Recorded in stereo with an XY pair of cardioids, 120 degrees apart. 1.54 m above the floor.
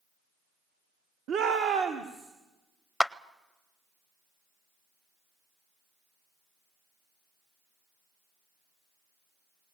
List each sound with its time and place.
1.3 s a shout: 60° right, 1.0 m; by 2.3 s 75° right, 2 m
3.0 s a clap: 5° left, 0.6 m